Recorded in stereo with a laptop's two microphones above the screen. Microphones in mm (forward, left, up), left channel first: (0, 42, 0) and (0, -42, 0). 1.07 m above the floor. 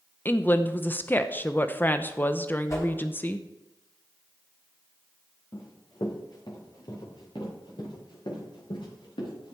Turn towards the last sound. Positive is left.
turn(degrees=70)  # may be behind; listen again after turning